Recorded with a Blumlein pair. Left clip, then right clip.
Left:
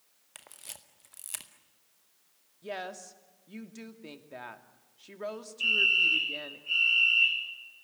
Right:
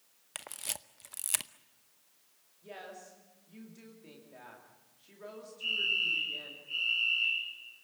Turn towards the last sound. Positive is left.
turn(degrees=35)